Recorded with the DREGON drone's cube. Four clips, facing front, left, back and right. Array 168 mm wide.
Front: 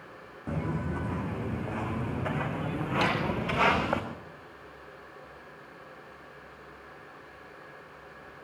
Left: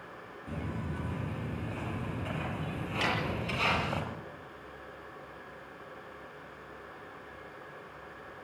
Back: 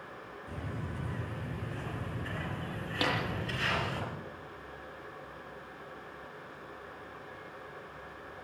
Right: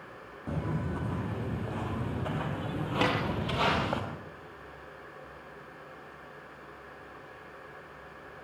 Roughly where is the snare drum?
Right.